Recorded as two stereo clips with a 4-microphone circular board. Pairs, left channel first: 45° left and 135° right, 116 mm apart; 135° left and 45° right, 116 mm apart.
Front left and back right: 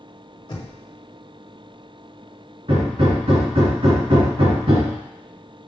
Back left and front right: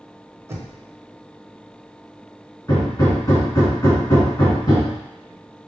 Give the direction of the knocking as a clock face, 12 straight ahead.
12 o'clock.